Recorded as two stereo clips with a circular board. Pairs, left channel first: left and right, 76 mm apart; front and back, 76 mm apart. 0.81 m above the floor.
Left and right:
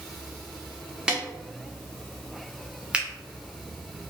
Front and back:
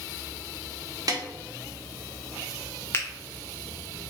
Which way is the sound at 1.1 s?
165° right.